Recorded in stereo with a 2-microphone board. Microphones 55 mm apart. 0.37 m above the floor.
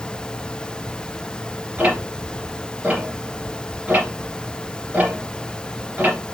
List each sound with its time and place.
1.8 s ticking: 25° right (ahead or behind), 2 m